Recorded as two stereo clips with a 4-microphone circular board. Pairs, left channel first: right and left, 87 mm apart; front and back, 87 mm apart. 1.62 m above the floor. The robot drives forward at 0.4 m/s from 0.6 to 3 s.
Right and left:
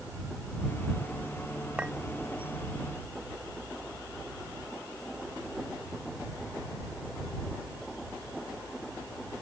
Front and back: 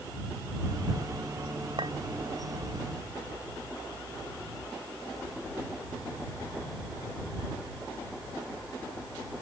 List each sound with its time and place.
1.8 s a clink: 165° left